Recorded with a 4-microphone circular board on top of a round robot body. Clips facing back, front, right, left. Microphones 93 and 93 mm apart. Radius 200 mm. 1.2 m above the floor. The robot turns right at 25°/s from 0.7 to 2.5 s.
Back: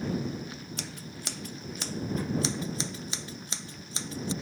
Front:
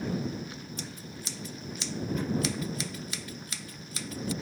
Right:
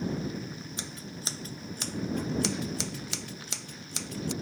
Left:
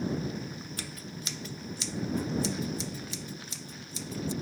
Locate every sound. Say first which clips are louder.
0.8 s scissors: even, even; 160° right; by 4.3 s 115° right